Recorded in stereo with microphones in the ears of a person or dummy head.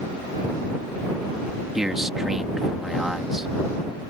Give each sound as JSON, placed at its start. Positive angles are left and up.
{"t": 1.8, "sound": "a man speaking", "side_deg": -5}